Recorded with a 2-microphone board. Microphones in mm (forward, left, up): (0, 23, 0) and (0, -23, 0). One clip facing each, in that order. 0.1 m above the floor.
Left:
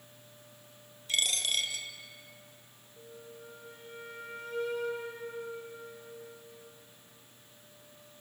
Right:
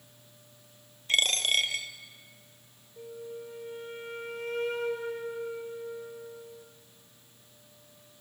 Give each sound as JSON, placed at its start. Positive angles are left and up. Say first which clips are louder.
{"t": 1.1, "sound": "a dropped coin", "louder": "right 5 dB", "side_deg": -50, "distance_m": 0.9}
{"t": 3.0, "sound": "a flute", "louder": "right 8 dB", "side_deg": -55, "distance_m": 2.5}